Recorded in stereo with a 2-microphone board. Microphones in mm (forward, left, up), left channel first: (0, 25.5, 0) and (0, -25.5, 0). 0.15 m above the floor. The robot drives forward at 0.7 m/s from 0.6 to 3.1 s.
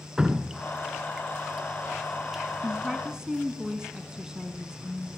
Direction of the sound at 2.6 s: 15° right (ahead or behind).